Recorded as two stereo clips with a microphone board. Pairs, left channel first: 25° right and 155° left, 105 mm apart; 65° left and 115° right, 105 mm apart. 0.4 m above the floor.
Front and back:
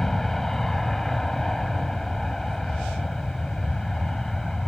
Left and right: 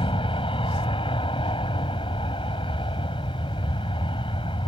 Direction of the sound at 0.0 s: 65° left.